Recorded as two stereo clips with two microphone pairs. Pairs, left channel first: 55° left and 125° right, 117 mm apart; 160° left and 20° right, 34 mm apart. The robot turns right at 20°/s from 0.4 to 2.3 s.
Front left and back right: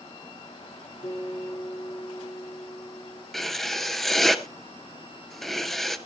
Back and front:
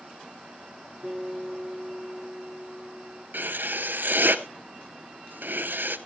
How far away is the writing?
About 0.7 m.